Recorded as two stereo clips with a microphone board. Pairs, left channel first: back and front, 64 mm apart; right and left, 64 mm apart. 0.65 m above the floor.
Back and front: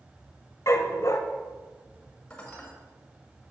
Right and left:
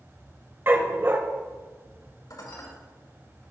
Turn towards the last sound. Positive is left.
turn(degrees=-110)